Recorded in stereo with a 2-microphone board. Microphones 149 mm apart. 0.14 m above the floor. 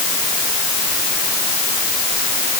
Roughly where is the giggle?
No giggle in this recording.